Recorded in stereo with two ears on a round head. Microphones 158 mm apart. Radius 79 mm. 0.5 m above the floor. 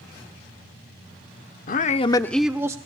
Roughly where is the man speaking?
Left.